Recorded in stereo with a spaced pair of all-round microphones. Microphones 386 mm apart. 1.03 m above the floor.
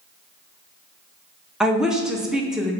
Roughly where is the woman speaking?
Centre.